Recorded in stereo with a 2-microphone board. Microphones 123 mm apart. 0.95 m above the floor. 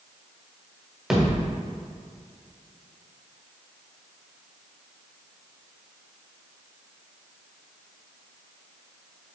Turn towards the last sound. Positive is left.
turn(degrees=-5)  # may be behind; listen again after turning